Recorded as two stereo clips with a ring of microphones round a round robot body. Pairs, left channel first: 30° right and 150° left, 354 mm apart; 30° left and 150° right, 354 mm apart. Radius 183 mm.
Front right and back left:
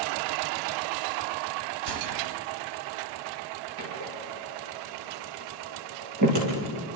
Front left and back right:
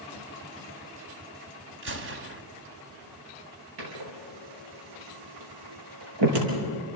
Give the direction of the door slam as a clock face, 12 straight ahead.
6 o'clock.